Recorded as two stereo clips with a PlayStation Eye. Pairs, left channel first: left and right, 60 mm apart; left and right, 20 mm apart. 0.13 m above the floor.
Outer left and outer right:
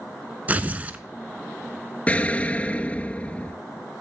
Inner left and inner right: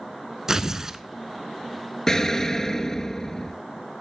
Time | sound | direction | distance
0.5 | tearing paper | 25° right (ahead or behind) | 0.6 m
2.1 | an explosion | 20° left (ahead or behind) | 0.5 m